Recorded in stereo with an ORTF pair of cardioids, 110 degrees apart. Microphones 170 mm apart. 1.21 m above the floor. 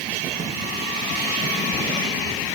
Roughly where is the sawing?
I don't hear sawing.